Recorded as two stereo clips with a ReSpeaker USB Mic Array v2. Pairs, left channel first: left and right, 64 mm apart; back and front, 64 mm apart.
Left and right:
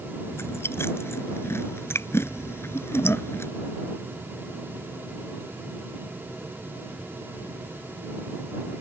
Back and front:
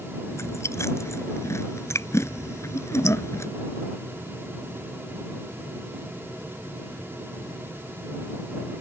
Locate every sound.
0.3 s chewing: 135° left